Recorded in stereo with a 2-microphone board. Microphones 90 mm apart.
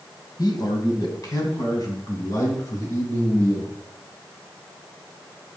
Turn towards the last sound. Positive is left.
turn(degrees=40)  # may be behind; listen again after turning